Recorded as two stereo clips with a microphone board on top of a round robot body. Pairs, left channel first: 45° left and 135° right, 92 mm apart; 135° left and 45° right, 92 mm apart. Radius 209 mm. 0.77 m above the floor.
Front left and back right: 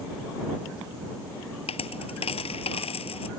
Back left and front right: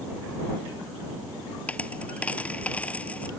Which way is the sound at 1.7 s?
60° left.